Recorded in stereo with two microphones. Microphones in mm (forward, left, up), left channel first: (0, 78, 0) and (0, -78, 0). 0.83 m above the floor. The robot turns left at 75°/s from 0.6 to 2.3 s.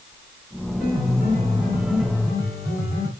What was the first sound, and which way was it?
A piano, 85° right.